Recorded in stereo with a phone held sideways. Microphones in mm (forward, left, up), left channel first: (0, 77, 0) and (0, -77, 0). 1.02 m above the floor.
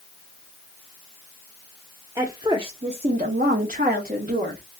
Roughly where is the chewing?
I don't hear chewing.